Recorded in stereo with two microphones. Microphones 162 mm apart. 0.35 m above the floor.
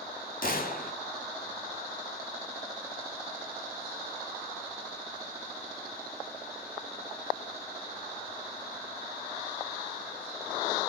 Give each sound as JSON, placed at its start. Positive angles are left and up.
{"t": 0.4, "sound": "a gunshot", "side_deg": 65, "distance_m": 2.5}